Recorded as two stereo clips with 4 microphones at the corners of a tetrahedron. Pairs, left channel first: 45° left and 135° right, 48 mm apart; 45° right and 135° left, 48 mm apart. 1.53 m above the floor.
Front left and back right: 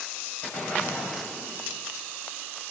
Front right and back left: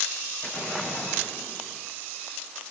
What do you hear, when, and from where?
0.4 s an explosion: 15° right, 6.5 m